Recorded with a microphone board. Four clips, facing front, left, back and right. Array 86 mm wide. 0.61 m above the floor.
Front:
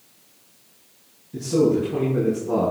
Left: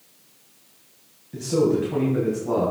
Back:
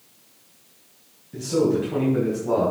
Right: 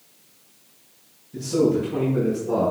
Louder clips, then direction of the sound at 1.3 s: Even, front 2 dB; 115° left.